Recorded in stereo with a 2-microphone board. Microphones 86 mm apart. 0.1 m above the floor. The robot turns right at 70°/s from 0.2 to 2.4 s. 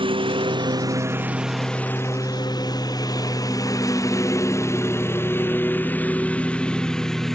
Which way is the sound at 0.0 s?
90° right.